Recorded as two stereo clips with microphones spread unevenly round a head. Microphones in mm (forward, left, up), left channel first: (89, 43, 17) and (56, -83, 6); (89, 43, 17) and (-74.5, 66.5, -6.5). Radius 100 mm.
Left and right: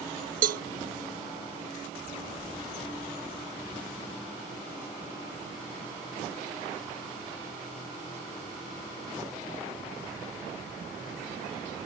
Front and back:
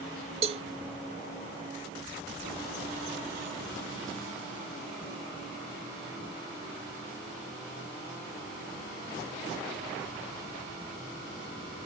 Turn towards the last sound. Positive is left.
turn(degrees=-125)